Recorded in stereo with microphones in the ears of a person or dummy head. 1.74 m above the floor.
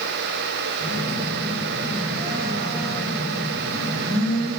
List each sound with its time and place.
0.8 s a phone buzzing: 20° right (ahead or behind), 5 m